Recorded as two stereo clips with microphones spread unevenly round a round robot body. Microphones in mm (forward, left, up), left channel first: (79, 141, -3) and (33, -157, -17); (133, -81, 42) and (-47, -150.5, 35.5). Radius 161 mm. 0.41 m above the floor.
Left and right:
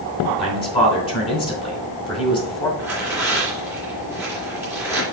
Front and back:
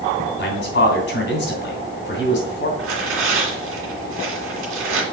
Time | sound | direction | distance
0.4 | a man speaking | 10° left | 3 m
2.8 | tearing paper | straight behind | 2.5 m